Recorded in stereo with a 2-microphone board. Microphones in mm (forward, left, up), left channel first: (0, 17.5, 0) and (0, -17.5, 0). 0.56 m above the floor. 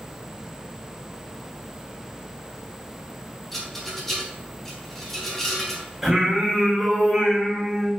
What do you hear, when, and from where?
3.5 s a rattle: 10° left (ahead or behind), 0.9 m
6.0 s singing: 10° right (ahead or behind), 1.3 m